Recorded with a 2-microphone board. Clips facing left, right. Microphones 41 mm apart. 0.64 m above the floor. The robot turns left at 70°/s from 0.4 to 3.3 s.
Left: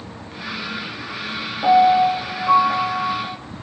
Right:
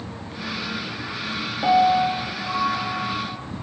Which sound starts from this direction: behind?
A piano, at 1.6 s.